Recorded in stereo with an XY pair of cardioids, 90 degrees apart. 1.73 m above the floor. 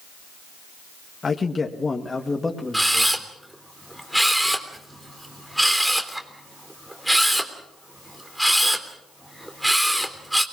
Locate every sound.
1.2 s a man speaking: 40° left, 2 m; by 3.3 s 10° left, 3 m
2.7 s a camera shutter: 10° right, 3 m